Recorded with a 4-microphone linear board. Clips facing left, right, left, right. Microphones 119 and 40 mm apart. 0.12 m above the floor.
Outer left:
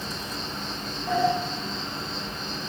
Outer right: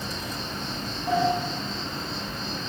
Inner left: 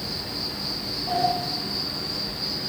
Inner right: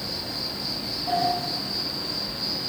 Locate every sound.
0.0 s an insect: 40° right (ahead or behind), 1.6 m
1.1 s a sliding door: 15° right (ahead or behind), 0.7 m